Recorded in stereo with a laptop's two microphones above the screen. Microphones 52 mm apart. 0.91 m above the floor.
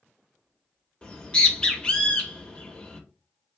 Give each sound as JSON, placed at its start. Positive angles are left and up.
{"t": 1.0, "sound": "a bird", "side_deg": 20, "distance_m": 0.8}